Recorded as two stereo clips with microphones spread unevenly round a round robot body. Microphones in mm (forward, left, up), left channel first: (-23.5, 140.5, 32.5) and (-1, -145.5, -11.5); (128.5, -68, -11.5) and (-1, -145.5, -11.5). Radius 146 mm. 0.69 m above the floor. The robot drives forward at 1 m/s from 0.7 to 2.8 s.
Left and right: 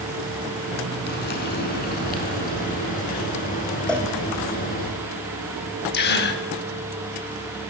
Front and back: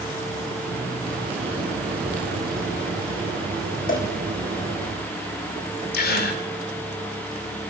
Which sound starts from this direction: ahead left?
A gasp, at 5.9 s.